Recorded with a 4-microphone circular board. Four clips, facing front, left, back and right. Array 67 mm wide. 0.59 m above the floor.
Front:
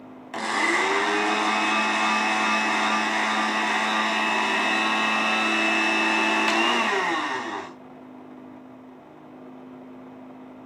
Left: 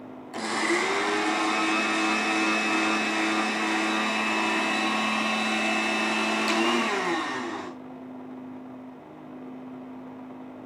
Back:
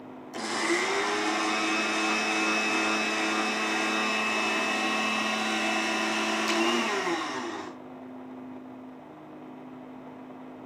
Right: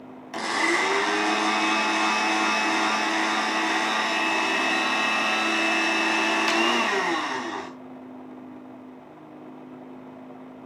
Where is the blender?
25° right, 3 m.